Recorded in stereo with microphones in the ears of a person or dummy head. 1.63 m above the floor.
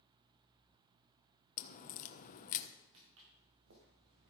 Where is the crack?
45° left (ahead or behind), 1.1 m.